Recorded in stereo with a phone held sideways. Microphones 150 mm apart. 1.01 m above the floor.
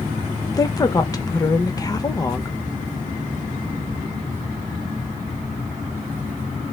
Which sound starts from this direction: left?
A woman speaking, at 0.5 s.